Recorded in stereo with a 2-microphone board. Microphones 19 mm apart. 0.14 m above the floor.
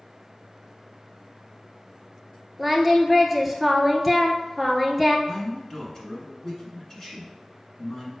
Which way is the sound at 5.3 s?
30° left (ahead or behind).